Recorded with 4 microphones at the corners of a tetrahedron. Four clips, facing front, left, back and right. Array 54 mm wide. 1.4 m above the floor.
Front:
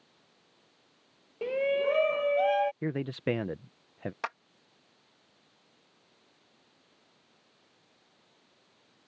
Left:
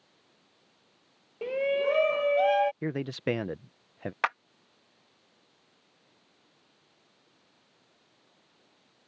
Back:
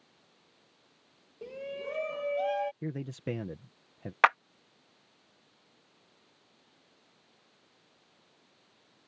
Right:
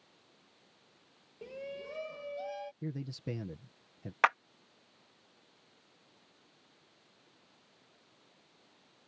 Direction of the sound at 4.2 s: Straight behind.